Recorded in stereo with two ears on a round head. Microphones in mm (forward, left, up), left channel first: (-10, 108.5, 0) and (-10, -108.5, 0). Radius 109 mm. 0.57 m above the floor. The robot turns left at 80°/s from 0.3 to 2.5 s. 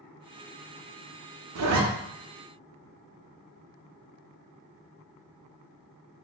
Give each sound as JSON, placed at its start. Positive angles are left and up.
{"t": 1.6, "sound": "a zipper", "side_deg": -65, "distance_m": 0.6}